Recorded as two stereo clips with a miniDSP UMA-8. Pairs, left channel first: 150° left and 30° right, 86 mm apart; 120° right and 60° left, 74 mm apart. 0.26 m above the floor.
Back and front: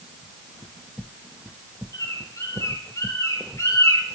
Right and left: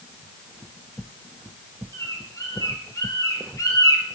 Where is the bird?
160° right, 2.0 m.